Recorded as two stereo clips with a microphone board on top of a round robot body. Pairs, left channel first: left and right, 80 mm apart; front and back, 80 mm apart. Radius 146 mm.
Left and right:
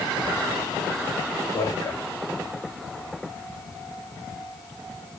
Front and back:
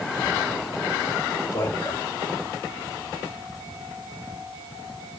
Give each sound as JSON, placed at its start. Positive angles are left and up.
{"t": 1.5, "sound": "a man speaking", "azimuth_deg": 50, "distance_m": 2.5}